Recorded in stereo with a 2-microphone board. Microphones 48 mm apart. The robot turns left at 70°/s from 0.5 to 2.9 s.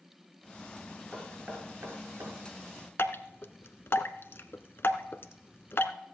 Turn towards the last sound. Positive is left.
turn(degrees=55)  # may be behind; listen again after turning